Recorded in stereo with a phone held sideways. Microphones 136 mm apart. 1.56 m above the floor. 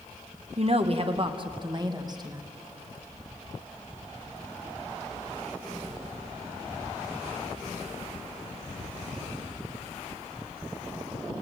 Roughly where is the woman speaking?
Right.